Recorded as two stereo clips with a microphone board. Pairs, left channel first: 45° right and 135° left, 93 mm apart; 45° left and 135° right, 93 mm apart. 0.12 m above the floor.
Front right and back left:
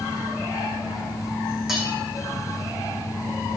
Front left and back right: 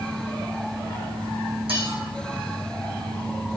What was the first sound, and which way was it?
Cutlery clinking, 140° right.